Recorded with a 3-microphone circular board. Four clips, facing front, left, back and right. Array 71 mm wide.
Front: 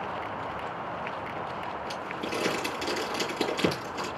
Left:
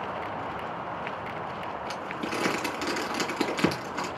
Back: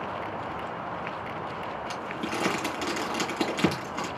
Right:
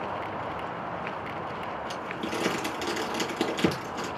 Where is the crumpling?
125° left, 3.5 m.